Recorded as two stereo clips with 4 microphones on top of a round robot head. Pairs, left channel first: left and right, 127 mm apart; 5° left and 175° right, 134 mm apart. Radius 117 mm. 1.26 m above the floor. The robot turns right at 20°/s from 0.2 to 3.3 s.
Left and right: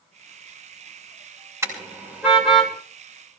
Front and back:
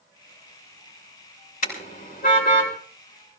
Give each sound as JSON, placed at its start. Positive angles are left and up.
{"t": 1.6, "sound": "a car horn", "azimuth_deg": -20, "distance_m": 6.0}